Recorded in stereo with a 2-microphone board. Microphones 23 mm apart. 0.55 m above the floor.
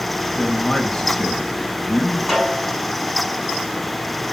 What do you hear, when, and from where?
0.4 s a man speaking: 15° left (ahead or behind), 3.5 m
2.3 s a snare drum: 10° right (ahead or behind), 6.5 m